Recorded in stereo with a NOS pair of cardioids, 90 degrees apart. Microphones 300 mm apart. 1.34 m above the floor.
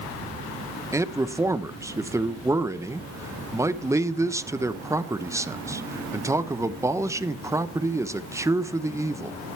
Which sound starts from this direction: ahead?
A man speaking, at 0.9 s.